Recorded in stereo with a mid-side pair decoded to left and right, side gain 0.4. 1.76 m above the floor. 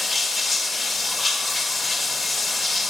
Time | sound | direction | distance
0.0 | running water | 40° left | 5.5 m